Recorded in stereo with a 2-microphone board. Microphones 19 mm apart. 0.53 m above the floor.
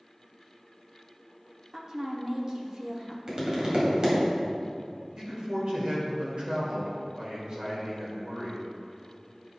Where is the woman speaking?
35° right (ahead or behind), 1.0 m.